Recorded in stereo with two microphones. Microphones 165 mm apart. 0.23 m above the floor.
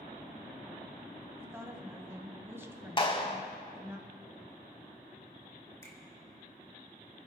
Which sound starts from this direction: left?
A clap, at 3.0 s.